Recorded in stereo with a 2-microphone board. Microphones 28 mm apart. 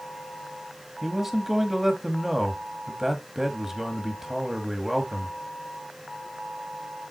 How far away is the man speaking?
About 1.2 m.